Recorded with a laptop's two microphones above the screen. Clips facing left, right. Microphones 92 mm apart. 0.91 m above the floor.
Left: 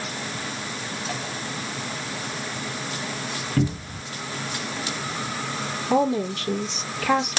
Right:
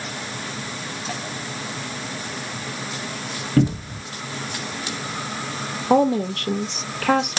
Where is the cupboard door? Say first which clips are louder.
Right 6 dB; 45° right (ahead or behind), 1.2 m.